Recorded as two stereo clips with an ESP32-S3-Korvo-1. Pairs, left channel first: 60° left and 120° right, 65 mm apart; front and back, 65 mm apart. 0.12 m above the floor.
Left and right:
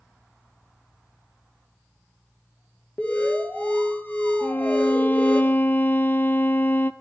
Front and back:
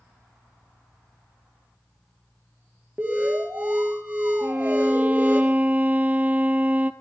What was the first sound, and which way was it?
An alarm, 120° left.